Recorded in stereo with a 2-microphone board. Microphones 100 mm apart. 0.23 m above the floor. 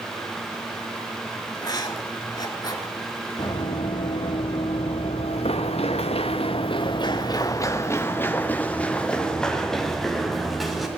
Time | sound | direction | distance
1.6 | writing | 40° left (ahead or behind) | 2 m
3.4 | running footsteps | 50° left (ahead or behind) | 2.5 m